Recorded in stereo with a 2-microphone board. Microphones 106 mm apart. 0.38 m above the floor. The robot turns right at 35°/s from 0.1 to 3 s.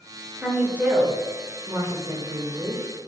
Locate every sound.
0.4 s a woman speaking: 5° right (ahead or behind), 1.0 m; by 2.8 s 35° right (ahead or behind), 1.0 m